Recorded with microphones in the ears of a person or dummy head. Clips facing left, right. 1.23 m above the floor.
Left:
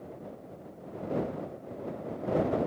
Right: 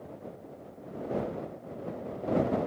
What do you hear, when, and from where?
Only background noise.